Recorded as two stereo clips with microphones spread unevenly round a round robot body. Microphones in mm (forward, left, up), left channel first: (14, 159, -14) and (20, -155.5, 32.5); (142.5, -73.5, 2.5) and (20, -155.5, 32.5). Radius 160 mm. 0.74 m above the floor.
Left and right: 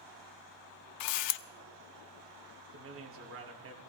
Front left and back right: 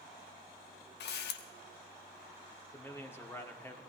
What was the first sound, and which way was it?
A camera shutter, 55° left.